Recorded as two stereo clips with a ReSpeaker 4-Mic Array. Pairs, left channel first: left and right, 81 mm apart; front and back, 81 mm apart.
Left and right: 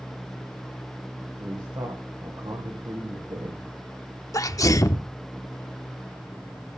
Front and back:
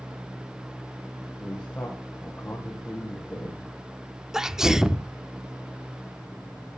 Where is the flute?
No flute in this recording.